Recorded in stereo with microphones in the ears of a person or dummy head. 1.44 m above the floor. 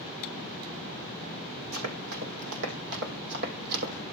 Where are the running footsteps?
70° right (ahead or behind), 4.5 m; by 3.9 s 50° right (ahead or behind), 3.5 m.